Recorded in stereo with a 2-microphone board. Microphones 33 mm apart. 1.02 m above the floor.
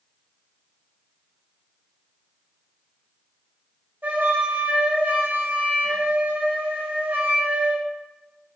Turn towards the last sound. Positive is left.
turn(degrees=-70)  # may be behind; listen again after turning